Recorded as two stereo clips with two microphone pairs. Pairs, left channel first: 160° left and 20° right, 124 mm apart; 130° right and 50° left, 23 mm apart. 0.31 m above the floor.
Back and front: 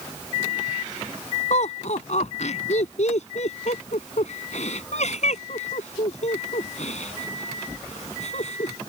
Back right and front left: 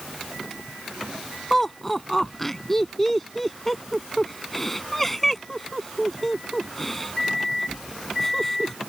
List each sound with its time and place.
1.5 s laughter: 150° left